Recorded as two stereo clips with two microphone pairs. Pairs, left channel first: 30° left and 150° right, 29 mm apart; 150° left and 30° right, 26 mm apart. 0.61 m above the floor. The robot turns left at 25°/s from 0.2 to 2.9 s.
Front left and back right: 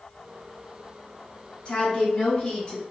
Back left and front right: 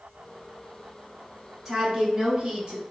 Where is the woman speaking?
30° left, 0.8 m; by 2.8 s straight ahead, 0.8 m.